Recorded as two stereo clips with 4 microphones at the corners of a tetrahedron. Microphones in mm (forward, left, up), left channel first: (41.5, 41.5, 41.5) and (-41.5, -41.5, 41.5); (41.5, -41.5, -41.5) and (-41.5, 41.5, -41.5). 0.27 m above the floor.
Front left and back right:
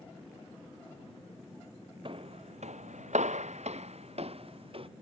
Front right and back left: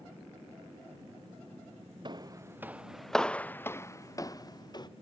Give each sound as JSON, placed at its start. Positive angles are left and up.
{"t": 2.0, "sound": "footsteps", "azimuth_deg": -175}